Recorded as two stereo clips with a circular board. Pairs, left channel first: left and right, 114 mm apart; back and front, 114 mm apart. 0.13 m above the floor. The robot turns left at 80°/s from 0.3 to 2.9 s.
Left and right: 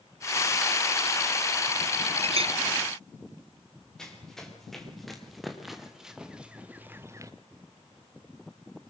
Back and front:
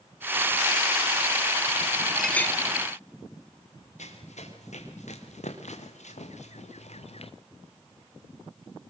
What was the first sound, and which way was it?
A clink, 90° right.